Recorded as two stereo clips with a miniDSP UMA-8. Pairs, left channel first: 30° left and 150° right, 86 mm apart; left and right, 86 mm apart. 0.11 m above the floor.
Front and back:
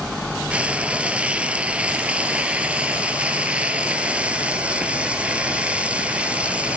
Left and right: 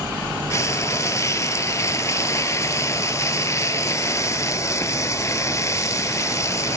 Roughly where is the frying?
Behind left.